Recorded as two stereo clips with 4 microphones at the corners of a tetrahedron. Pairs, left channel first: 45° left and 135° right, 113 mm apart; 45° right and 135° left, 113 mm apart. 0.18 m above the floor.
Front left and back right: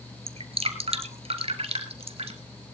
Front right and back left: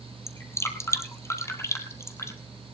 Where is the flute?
No flute in this recording.